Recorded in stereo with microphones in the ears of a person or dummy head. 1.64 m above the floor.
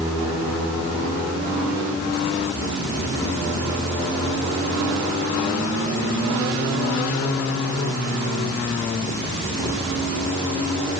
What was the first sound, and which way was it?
Only background noise.